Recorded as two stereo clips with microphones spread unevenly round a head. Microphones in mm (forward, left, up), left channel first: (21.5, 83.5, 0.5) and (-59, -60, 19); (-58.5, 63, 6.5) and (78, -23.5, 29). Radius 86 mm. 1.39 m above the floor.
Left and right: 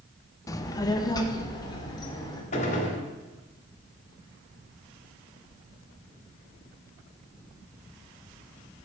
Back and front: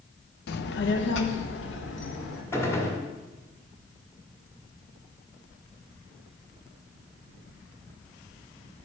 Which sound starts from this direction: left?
A gunshot, at 2.5 s.